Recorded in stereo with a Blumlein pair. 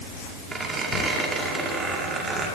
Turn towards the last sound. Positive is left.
turn(degrees=-15)